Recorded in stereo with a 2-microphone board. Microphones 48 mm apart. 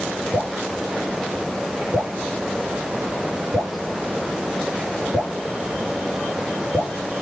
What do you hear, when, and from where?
0.3 s dripping: 55° right (ahead or behind), 6.5 m